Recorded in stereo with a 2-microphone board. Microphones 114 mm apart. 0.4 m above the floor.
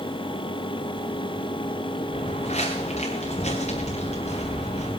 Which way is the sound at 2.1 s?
75° left (ahead or behind).